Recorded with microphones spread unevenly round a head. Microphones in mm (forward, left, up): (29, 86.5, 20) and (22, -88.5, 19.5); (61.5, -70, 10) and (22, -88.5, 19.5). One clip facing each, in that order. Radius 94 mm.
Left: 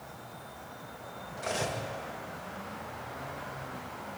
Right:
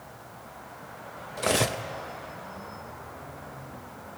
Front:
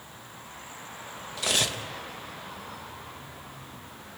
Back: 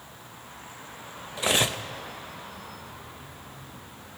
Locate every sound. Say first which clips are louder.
1.4 s cutlery clinking: right 7 dB, back 3 dB; 100° right, 0.9 m